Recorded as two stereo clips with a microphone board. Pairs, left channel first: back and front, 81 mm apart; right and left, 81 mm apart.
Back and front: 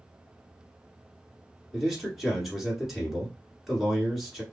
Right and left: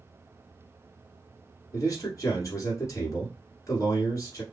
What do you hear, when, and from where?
1.7 s a man speaking: 90° right, 1.6 m